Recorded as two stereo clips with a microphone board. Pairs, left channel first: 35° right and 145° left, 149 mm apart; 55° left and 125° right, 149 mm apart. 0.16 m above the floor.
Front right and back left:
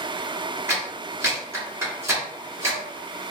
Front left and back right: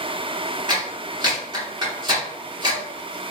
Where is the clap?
155° right, 1.7 m.